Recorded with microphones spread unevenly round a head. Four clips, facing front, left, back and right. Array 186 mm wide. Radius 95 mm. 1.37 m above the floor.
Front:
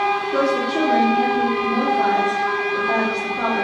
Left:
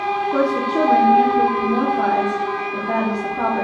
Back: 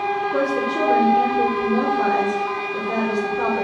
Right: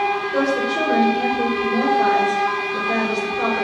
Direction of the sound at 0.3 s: 65° left.